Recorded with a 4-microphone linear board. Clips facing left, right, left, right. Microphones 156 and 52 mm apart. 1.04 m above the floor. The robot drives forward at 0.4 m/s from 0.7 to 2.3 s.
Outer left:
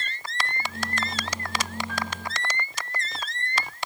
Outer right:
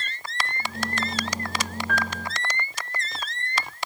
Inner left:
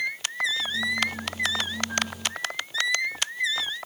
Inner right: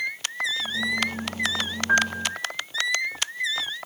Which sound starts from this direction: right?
A piano, at 1.9 s.